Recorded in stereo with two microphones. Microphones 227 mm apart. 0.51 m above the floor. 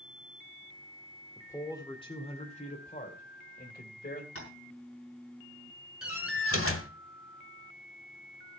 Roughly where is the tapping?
Left.